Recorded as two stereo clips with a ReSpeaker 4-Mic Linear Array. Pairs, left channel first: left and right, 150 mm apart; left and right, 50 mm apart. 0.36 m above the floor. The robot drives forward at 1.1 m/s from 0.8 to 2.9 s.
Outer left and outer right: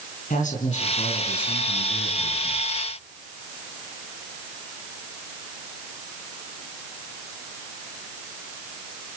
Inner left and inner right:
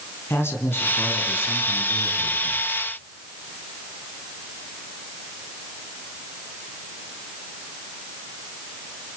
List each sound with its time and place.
0.3 s a man speaking: 55° left (ahead or behind), 3.5 m; by 2.7 s 70° left (ahead or behind), 3 m